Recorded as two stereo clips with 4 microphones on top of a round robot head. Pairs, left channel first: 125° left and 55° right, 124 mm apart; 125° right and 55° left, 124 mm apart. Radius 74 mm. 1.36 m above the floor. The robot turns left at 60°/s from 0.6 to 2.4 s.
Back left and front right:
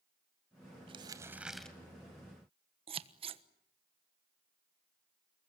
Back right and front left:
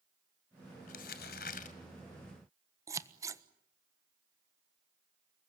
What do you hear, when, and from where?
0.9 s crumpling: 100° right, 2 m; by 1.8 s 155° right, 2 m
2.9 s scissors: 10° right, 1.3 m